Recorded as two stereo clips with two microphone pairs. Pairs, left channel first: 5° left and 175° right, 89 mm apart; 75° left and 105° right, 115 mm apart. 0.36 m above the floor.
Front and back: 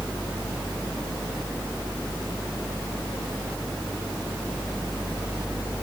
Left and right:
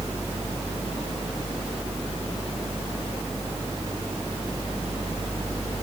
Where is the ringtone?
I don't hear a ringtone.